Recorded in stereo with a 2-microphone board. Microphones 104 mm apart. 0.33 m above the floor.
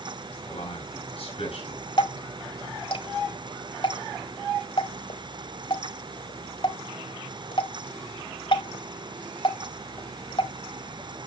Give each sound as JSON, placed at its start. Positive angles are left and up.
{"t": 0.5, "sound": "a man speaking", "side_deg": 70, "distance_m": 4.5}
{"t": 2.0, "sound": "dripping", "side_deg": 60, "distance_m": 1.4}